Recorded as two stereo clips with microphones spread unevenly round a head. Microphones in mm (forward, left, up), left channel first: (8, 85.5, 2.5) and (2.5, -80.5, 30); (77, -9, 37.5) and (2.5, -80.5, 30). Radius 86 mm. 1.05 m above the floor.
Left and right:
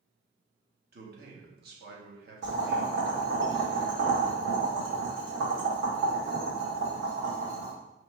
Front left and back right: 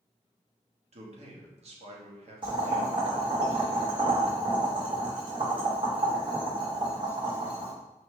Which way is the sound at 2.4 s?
110° right.